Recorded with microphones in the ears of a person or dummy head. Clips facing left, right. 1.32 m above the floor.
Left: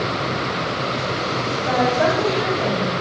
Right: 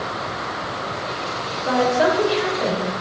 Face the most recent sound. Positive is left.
turn(degrees=-70)  # may be behind; listen again after turning